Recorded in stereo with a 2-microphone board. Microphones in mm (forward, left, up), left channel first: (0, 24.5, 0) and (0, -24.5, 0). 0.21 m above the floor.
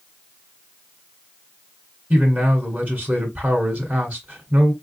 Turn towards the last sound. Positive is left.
turn(degrees=-35)  # may be behind; listen again after turning